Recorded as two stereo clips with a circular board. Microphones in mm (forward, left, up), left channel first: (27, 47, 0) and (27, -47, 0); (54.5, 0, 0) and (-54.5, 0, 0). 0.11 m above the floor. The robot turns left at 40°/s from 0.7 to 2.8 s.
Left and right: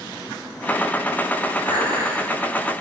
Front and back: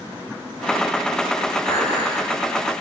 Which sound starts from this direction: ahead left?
Dishes clattering, at 1.6 s.